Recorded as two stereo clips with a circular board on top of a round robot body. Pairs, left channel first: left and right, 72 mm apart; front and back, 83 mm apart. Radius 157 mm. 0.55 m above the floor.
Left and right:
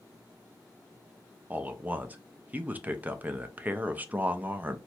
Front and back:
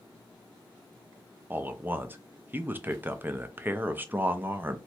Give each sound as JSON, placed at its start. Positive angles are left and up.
{"t": 1.5, "sound": "a man speaking", "azimuth_deg": -135, "distance_m": 0.6}